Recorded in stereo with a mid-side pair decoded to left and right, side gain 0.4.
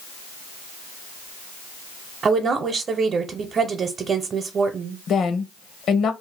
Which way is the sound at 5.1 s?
65° left.